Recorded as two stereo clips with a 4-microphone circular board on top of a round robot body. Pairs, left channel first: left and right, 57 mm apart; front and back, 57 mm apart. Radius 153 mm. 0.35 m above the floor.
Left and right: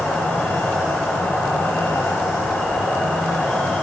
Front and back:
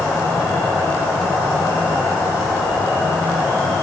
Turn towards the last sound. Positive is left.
turn(degrees=10)